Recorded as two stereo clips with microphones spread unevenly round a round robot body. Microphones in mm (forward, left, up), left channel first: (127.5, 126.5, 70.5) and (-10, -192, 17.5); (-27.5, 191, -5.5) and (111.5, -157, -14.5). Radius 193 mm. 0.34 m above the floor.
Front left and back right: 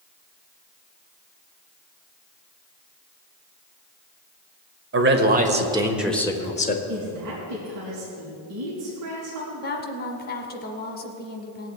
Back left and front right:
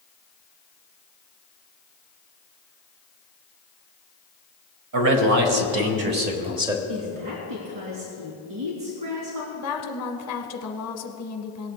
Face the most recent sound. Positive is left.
turn(degrees=130)